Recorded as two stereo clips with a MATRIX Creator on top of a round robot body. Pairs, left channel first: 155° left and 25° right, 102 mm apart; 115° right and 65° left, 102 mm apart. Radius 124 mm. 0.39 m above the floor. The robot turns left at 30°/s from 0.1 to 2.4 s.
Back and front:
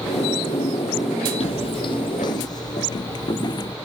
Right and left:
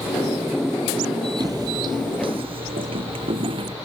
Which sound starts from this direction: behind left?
Footsteps, at 1.4 s.